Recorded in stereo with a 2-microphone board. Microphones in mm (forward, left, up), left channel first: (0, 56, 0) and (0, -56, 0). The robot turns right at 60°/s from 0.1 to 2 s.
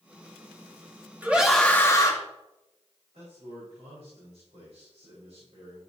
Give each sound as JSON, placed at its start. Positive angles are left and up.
{"t": 1.2, "sound": "a scream", "azimuth_deg": -15, "distance_m": 1.3}
{"t": 3.1, "sound": "a man speaking", "side_deg": -85, "distance_m": 4.5}